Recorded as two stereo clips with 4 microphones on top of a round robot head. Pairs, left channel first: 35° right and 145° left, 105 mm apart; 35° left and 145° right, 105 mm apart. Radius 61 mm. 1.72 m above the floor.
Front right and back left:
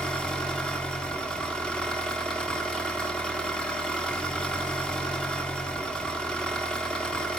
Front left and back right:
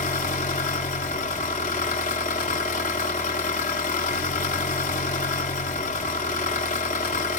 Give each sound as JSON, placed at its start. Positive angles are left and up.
{"t": 0.0, "sound": "an engine running", "azimuth_deg": 45, "distance_m": 1.9}